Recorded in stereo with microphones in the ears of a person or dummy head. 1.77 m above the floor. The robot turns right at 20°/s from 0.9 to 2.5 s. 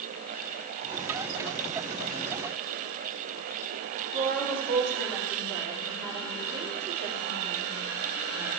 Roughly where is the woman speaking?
Right.